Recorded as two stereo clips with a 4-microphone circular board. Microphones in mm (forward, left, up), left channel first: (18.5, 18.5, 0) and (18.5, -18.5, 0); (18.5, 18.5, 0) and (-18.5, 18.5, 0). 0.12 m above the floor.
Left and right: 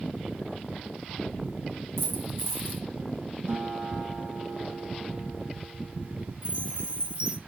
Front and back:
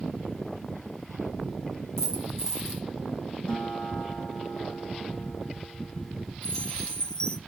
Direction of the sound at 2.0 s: 75° right.